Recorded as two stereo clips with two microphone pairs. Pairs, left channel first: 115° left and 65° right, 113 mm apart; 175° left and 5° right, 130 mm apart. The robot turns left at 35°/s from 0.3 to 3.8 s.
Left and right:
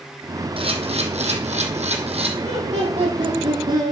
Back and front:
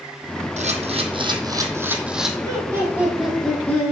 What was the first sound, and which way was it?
A camera shutter, 30° right.